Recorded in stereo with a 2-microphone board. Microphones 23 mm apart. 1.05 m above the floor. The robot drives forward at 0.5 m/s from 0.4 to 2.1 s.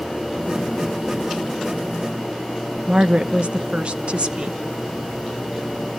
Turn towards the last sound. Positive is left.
turn(degrees=-50)  # may be behind; listen again after turning